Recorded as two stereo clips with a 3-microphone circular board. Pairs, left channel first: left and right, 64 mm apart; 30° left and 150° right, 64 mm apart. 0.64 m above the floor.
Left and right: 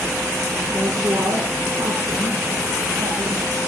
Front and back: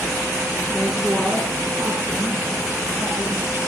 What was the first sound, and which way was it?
A woman speaking, 65° right.